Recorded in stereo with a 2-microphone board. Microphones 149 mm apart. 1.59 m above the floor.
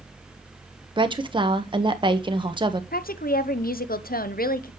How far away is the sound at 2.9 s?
About 0.8 m.